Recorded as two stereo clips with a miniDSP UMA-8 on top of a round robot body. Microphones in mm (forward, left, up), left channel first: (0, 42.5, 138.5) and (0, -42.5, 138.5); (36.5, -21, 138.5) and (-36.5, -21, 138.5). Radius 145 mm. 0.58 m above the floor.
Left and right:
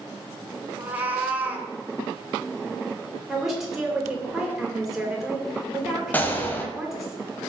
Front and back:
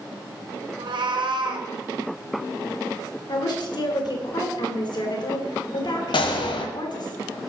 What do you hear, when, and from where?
0.8 s a cat meowing: 165° right, 1.7 m
3.3 s a woman speaking: 5° right, 3.5 m
6.1 s a gunshot: 20° left, 1.1 m